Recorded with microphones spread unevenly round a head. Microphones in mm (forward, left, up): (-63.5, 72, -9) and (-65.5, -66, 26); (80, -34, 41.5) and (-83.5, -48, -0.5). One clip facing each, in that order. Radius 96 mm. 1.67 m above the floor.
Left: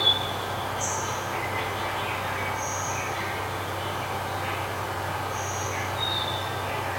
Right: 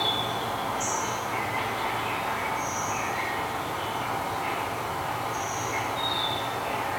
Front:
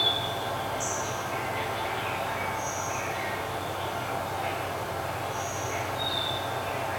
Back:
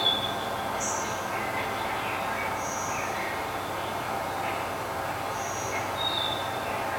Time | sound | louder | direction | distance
0.0 | an insect | right 1 dB, even | 60° right | 1.4 m